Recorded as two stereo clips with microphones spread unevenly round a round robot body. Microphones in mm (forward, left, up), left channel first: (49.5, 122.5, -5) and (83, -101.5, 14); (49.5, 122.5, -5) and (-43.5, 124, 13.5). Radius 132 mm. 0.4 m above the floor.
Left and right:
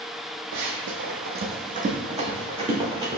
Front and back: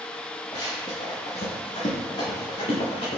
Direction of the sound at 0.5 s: 70° right.